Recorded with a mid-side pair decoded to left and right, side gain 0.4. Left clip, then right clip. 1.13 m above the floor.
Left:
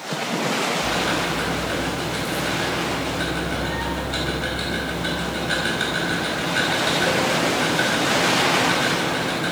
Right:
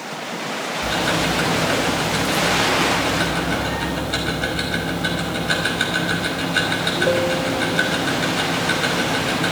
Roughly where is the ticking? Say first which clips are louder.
Right 2 dB; ahead right.